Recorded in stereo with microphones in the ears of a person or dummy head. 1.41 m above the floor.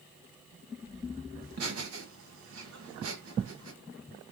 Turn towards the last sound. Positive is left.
turn(degrees=-80)